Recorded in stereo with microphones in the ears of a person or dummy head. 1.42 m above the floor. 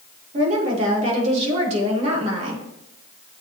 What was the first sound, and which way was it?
A woman speaking, 40° right (ahead or behind).